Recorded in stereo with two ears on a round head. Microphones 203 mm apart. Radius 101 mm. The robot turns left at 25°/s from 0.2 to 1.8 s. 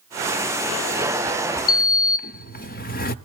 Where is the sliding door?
40° left (ahead or behind), 0.7 m.